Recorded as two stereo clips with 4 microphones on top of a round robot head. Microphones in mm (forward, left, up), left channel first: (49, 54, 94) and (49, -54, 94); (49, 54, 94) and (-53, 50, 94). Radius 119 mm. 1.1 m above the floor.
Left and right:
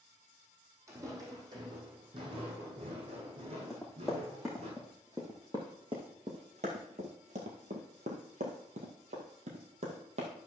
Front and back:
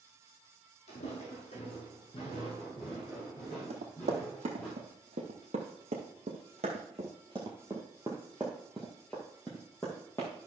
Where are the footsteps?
30° right, 2.5 m; by 4.7 s 75° right, 4 m.